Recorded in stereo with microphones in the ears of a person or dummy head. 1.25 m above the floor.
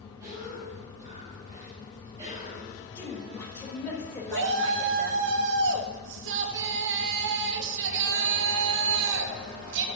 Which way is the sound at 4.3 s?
65° right (ahead or behind).